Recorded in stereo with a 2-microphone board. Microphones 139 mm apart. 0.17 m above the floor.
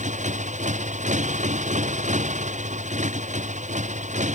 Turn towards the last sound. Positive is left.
turn(degrees=-55)  # may be behind; listen again after turning